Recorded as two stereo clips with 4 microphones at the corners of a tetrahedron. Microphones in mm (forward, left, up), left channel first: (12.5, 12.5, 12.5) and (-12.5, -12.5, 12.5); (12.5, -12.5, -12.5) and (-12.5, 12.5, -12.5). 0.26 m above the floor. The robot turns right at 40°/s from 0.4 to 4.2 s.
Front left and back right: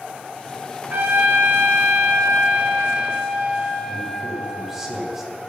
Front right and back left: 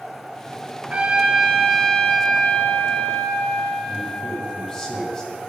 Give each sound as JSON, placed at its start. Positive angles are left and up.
{"t": 0.9, "sound": "a trumpet", "azimuth_deg": -170, "distance_m": 1.3}
{"t": 3.9, "sound": "a man speaking", "azimuth_deg": -80, "distance_m": 1.5}